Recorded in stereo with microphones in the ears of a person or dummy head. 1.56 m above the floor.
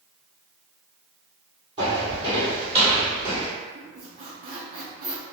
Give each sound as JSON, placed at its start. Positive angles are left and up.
{"t": 1.8, "sound": "footsteps", "side_deg": -20, "distance_m": 1.8}
{"t": 3.8, "sound": "a squeak", "side_deg": -35, "distance_m": 0.5}